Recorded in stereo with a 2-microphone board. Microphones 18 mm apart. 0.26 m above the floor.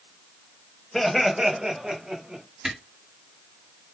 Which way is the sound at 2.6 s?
40° right (ahead or behind).